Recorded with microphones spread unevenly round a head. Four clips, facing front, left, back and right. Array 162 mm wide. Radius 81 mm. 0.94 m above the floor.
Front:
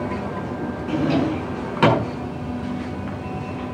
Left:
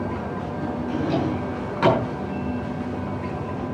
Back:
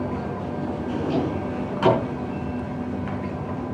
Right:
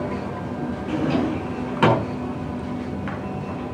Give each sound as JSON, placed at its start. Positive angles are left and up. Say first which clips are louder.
{"t": 0.9, "sound": "a drawer", "louder": "right 2 dB, front 5 dB", "azimuth_deg": -30, "distance_m": 6.5}